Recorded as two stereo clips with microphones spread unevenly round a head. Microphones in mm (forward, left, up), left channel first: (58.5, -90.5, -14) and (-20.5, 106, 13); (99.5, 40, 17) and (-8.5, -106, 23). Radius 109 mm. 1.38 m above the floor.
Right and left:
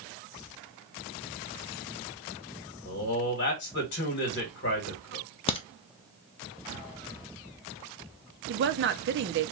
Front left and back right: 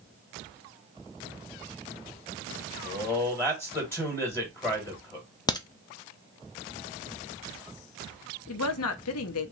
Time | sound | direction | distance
2.9 | a man speaking | 25° right | 1.8 m
5.5 | a crack | 10° right | 0.7 m
8.5 | a woman speaking | 70° left | 0.7 m